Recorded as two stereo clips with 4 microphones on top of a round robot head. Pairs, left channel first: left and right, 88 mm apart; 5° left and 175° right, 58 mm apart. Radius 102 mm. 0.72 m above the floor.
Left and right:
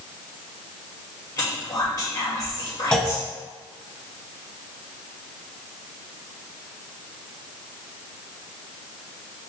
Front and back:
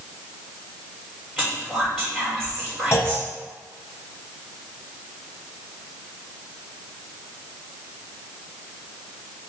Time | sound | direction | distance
1.4 | whispering | 90° left | 1.6 m
2.9 | a clunk | 15° left | 0.9 m